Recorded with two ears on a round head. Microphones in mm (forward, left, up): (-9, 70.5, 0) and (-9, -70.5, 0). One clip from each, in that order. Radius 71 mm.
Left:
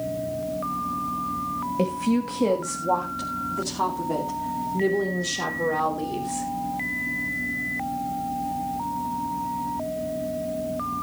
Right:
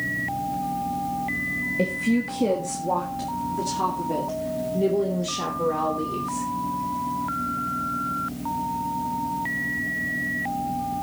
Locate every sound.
1.8 s a woman speaking: 25° left (ahead or behind), 1.3 m; by 6.5 s 35° left (ahead or behind), 4 m